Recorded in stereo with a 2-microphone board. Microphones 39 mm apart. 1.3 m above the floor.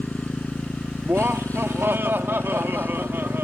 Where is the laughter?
75° right (ahead or behind).